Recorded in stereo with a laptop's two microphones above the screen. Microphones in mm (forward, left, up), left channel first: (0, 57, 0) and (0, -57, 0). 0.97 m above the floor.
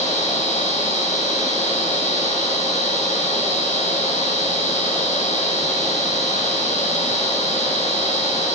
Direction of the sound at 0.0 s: 80° left.